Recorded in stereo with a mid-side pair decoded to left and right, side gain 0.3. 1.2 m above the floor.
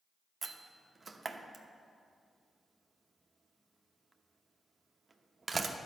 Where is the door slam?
40° right, 0.8 m.